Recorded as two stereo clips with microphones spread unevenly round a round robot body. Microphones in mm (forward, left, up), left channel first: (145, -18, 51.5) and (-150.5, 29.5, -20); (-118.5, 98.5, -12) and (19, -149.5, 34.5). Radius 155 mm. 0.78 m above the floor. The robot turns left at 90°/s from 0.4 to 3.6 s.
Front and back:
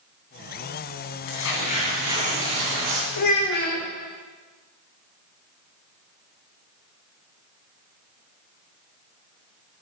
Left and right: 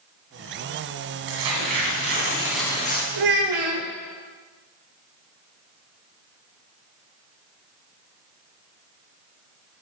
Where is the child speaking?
35° right, 1.4 m; by 3.9 s 75° right, 1.4 m.